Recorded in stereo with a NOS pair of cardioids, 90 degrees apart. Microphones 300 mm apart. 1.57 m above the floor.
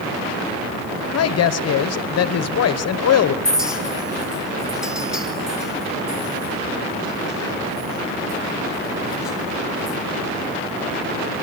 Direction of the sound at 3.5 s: Straight ahead.